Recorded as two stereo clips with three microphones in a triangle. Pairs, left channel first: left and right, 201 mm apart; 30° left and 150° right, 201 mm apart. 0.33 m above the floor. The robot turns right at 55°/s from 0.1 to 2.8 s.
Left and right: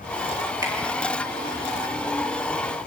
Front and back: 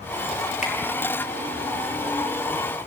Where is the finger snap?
20° right, 6.5 m; by 0.7 s 10° right, 6.5 m.